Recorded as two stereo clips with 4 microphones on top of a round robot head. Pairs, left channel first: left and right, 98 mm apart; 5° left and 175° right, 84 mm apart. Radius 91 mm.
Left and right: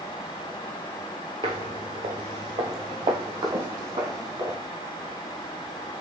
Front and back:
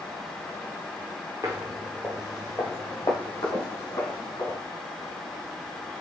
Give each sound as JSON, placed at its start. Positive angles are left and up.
{"t": 1.4, "sound": "footsteps", "azimuth_deg": -115, "distance_m": 0.5}